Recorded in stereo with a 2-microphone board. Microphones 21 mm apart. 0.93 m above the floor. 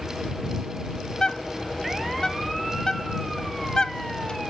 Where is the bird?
35° left (ahead or behind).